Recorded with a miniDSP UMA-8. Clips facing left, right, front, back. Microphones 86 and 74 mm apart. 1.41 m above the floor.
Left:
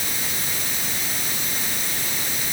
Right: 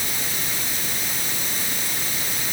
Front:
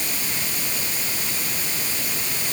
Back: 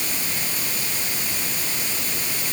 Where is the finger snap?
No finger snap in this recording.